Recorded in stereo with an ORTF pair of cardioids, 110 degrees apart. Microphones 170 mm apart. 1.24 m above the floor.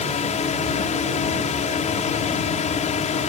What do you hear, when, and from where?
0.0 s a drone: 45° left